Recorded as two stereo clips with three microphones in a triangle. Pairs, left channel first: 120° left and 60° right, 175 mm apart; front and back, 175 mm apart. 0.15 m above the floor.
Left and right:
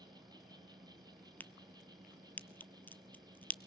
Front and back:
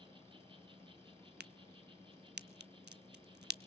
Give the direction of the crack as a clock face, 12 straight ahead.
5 o'clock.